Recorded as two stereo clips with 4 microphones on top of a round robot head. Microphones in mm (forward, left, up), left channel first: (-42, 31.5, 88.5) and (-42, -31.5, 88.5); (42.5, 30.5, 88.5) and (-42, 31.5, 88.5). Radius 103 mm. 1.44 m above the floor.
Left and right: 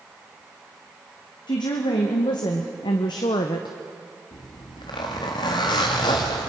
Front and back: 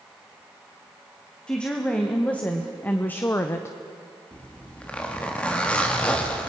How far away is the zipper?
About 1.3 m.